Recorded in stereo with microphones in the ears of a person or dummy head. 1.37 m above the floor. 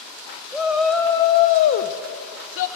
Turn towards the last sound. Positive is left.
turn(degrees=80)